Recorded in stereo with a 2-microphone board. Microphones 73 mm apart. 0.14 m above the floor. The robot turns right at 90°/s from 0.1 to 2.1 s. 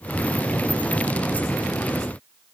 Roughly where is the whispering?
I don't hear whispering.